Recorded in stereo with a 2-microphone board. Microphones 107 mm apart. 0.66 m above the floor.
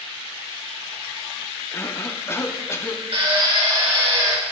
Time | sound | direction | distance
1.7 | a cough | 25° left (ahead or behind) | 0.8 m
3.1 | a drill | 60° right (ahead or behind) | 2 m